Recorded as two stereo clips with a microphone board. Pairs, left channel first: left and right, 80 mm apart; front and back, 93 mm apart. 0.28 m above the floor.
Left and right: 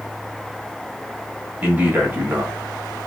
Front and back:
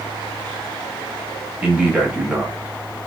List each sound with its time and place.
1.6 s a man speaking: 125° right, 1.2 m